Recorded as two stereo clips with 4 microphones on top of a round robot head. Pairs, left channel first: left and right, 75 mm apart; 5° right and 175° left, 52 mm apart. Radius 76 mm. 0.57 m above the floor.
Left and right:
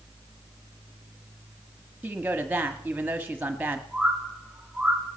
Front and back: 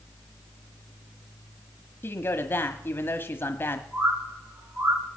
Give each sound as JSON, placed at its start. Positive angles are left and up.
{"t": 2.0, "sound": "a woman speaking", "azimuth_deg": -25, "distance_m": 1.2}
{"t": 3.9, "sound": "a bird", "azimuth_deg": -150, "distance_m": 3.5}